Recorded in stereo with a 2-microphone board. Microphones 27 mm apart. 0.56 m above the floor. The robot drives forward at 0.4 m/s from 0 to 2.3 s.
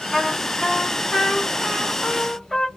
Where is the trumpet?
5° left (ahead or behind), 0.7 m.